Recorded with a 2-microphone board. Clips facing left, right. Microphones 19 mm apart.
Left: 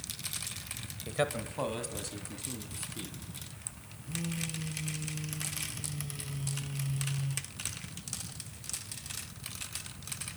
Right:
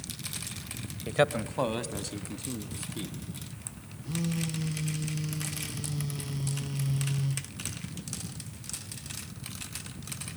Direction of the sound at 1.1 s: 25° right (ahead or behind).